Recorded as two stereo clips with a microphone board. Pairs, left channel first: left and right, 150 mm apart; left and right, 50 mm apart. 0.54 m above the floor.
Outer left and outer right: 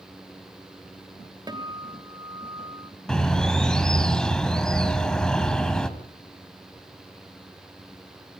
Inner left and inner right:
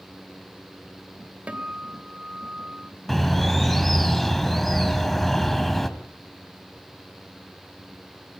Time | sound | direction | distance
1.5 | a guitar | 30° right (ahead or behind) | 2.5 m
3.1 | a bird | 5° left (ahead or behind) | 1.8 m